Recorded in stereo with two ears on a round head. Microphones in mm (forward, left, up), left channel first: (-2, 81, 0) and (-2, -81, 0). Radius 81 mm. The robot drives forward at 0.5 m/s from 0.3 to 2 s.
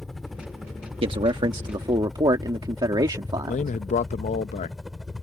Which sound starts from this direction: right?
A man speaking, at 1.0 s.